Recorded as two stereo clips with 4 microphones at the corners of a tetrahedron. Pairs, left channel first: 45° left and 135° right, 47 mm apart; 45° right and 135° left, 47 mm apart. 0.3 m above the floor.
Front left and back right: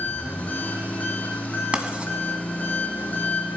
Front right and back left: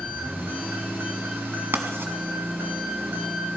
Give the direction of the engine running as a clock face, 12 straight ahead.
9 o'clock.